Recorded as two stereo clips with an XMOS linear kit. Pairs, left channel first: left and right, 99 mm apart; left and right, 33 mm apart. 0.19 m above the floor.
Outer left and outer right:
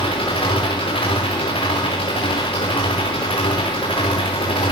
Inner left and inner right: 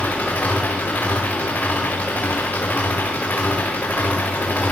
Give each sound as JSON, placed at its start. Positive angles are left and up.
{"t": 0.0, "sound": "an engine running", "side_deg": 70, "distance_m": 9.0}